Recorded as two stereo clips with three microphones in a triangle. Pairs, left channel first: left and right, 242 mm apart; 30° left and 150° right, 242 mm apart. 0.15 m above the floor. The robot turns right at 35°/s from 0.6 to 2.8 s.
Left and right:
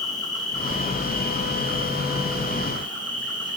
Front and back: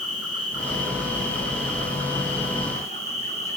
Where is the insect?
15° left, 7.5 m; by 3.6 s 95° left, 7.5 m.